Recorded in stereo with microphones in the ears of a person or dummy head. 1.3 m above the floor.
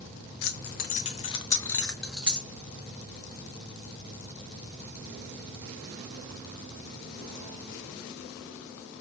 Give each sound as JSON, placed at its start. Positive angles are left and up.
{"t": 0.4, "sound": "keys jangling", "side_deg": 55, "distance_m": 0.8}